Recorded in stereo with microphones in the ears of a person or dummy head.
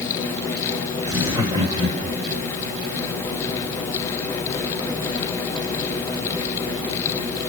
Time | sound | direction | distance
1.1 | laughter | 15° right (ahead or behind) | 2 m